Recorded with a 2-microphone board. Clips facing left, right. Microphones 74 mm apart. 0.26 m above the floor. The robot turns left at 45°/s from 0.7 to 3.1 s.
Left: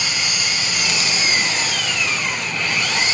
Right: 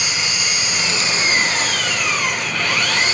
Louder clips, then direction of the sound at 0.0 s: Right 1 dB; 20° right.